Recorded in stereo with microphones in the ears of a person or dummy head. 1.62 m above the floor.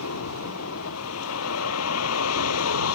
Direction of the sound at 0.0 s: 85° left.